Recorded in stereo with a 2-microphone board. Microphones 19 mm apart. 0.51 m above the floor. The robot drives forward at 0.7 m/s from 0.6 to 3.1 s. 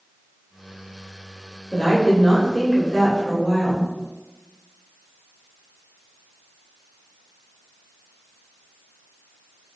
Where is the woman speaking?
40° left (ahead or behind), 1.6 m; by 3.9 s 35° left (ahead or behind), 1.7 m.